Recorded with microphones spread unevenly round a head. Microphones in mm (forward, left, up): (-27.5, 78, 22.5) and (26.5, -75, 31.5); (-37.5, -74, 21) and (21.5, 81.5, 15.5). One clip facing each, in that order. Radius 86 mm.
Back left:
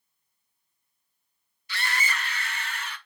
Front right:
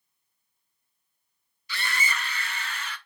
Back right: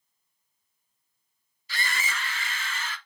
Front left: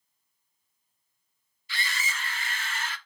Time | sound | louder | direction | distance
1.7 | a scream | back left 1 dB, back right 3 dB | 60° right | 1.1 m